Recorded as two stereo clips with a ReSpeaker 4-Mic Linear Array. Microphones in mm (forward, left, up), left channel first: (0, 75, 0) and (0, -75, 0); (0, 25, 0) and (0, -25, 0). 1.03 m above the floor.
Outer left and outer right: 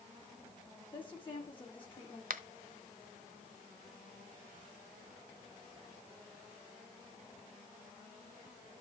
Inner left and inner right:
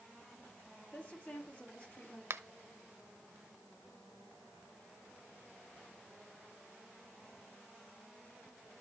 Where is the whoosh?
No whoosh in this recording.